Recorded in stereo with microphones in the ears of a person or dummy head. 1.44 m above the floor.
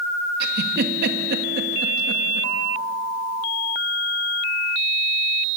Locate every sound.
0.4 s a giggle: 55° right (ahead or behind), 2 m